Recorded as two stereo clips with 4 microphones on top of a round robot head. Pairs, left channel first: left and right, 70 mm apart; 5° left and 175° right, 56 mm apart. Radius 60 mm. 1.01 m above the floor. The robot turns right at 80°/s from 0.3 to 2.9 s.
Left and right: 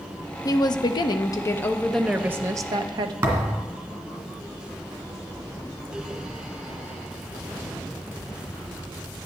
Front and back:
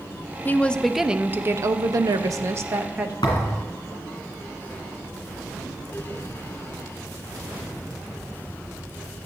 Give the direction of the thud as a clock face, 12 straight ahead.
1 o'clock.